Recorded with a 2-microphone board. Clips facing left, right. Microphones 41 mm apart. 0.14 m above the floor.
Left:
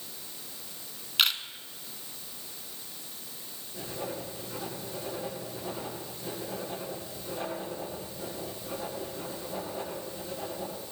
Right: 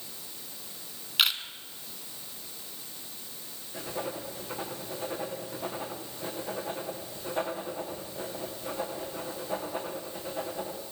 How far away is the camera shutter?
About 1.4 m.